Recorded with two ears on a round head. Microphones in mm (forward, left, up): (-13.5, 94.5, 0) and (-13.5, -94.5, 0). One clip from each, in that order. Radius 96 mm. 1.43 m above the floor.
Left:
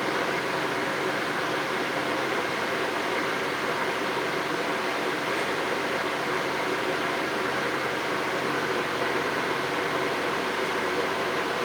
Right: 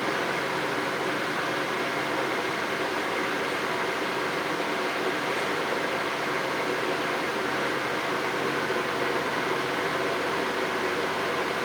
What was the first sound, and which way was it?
Only background noise.